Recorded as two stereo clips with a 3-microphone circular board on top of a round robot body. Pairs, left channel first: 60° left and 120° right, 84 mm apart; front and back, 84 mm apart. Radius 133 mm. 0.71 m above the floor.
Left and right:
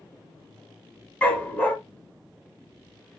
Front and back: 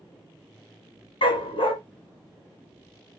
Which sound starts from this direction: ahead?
A dog barking, at 1.2 s.